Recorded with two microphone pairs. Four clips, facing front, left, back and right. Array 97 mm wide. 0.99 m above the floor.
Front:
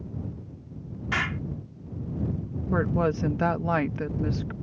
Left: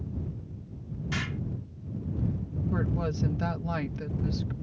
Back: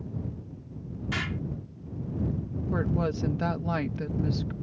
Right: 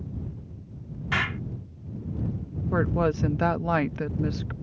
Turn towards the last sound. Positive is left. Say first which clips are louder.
# right 8 dB, front 4 dB
turn(degrees=-50)